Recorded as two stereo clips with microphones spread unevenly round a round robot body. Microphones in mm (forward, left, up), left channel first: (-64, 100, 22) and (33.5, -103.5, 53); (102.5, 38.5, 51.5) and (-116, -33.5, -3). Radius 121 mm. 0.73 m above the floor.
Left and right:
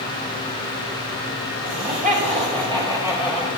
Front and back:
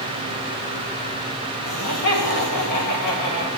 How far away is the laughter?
About 4 m.